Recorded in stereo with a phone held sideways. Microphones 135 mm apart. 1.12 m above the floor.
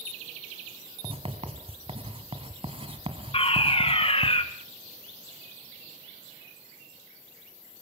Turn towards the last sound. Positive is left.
turn(degrees=45)  # may be behind; listen again after turning